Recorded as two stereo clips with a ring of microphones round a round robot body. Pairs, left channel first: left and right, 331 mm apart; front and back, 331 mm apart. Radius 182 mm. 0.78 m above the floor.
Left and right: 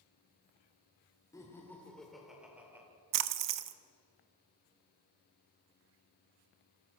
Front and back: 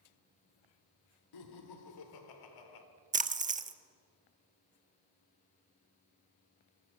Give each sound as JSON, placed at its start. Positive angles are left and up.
{"t": 1.3, "sound": "laughter", "azimuth_deg": 10, "distance_m": 3.0}
{"t": 3.1, "sound": "a splash", "azimuth_deg": -115, "distance_m": 1.3}